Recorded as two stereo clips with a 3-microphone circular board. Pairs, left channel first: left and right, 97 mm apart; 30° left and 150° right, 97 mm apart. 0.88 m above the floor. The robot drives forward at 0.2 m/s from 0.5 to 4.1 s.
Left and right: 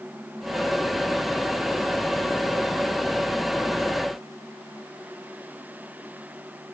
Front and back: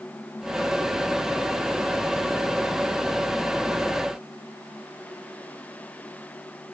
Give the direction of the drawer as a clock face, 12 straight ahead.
No drawer in this recording.